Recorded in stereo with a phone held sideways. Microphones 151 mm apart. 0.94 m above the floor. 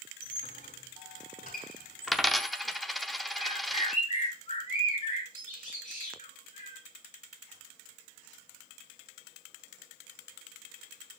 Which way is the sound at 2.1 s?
Centre (ahead or behind).